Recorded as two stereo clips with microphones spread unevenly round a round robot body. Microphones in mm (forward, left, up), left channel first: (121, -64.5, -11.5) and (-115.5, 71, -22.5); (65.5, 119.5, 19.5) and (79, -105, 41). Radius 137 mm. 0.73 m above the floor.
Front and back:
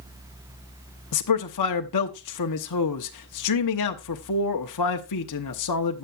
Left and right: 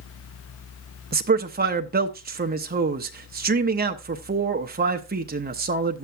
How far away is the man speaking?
About 0.9 m.